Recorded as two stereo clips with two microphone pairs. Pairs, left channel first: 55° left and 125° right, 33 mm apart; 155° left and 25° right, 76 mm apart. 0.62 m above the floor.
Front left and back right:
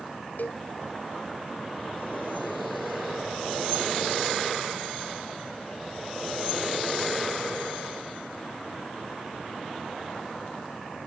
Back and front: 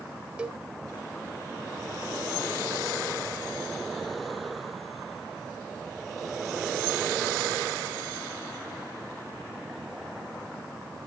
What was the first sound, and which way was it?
A cowbell, 50° left.